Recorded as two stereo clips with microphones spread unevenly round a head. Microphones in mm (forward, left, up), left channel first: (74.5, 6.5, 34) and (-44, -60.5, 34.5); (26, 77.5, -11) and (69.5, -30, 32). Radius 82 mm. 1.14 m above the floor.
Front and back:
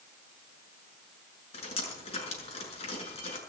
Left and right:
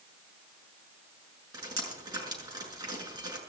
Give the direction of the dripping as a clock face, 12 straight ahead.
1 o'clock.